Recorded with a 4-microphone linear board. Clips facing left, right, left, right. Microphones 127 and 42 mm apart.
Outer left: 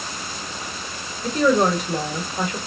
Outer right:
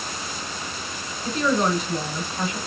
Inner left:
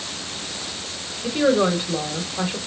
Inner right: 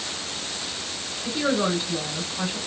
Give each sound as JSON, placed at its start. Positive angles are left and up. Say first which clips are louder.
{"t": 1.2, "sound": "a woman speaking", "louder": "outer left 4 dB, inner left 5 dB", "side_deg": 60, "distance_m": 1.2}